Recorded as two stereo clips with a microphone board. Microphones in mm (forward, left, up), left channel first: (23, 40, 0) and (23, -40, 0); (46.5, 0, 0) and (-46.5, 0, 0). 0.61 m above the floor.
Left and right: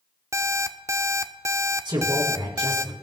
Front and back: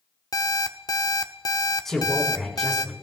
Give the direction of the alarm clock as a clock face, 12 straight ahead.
1 o'clock.